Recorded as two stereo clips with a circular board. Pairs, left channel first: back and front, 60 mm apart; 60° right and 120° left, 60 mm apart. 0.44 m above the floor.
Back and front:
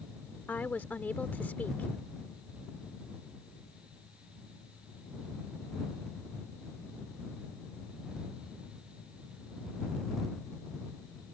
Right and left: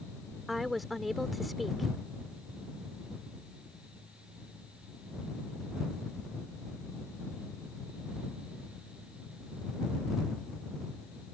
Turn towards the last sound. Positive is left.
turn(degrees=-155)